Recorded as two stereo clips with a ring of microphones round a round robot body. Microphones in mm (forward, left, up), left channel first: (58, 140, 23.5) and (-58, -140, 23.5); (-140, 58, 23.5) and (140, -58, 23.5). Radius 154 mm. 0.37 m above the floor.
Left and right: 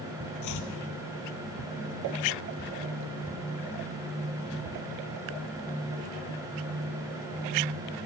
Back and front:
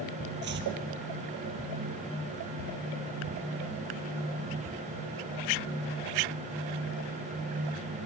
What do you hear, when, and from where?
0.4 s chopping: 35° left, 2.5 m